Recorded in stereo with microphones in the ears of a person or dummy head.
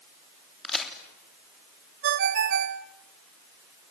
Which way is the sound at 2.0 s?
60° right (ahead or behind).